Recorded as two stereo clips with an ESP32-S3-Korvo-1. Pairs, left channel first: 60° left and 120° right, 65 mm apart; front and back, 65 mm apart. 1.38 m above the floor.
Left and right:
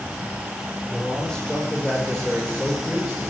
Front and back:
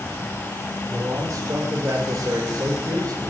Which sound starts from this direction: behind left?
A man speaking, at 0.9 s.